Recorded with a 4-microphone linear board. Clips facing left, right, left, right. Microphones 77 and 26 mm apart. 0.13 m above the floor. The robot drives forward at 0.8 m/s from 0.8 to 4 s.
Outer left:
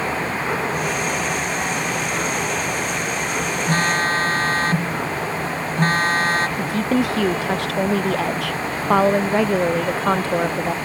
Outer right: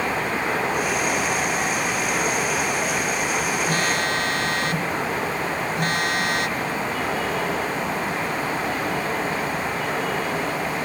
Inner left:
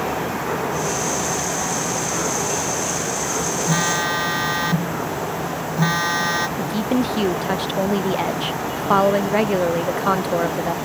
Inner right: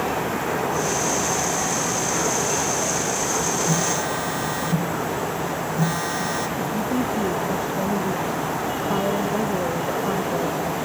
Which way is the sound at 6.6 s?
80° left.